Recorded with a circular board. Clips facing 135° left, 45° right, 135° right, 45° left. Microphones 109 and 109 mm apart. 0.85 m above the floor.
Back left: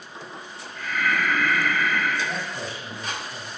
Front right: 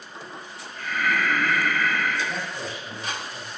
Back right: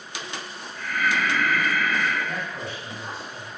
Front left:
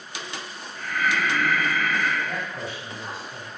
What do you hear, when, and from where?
0.8 s breathing: 5° left, 1.4 m
2.2 s a man speaking: 120° left, 1.7 m